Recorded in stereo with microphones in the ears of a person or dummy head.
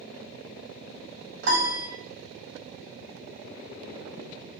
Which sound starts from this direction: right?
A piano, at 1.4 s.